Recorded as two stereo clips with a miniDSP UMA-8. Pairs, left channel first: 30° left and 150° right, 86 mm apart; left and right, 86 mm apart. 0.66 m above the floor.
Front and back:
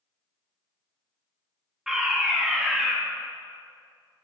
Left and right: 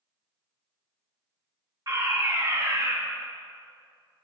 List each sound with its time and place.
1.9 s a fire alarm: 70° right, 2 m